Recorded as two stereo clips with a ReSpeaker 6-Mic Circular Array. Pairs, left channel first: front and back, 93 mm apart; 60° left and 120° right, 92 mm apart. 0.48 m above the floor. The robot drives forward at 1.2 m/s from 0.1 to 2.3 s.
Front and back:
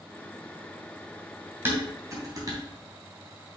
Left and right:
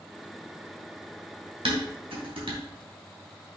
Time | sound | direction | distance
1.6 | dishes clattering | 115° right | 2.5 m